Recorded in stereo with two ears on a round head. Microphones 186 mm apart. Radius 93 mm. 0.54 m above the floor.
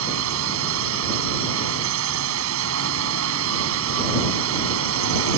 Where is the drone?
75° right (ahead or behind).